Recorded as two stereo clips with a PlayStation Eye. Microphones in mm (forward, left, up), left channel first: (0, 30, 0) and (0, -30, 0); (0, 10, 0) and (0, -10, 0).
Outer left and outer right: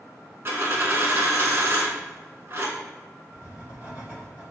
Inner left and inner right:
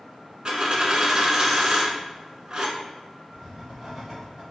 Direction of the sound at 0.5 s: 40° right (ahead or behind).